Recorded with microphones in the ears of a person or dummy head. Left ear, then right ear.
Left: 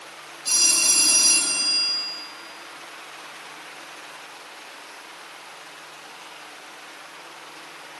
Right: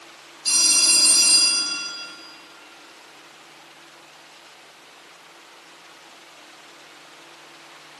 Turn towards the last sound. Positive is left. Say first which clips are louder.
# right 2 dB
turn(degrees=-15)  # may be behind; listen again after turning